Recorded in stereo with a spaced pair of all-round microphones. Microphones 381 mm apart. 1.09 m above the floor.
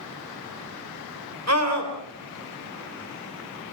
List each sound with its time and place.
1.5 s a scream: 45° right (ahead or behind), 4 m